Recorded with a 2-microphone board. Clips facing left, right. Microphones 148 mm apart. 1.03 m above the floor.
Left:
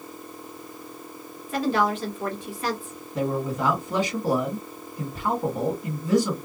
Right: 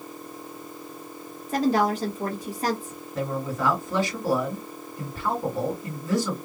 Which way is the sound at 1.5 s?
40° right (ahead or behind).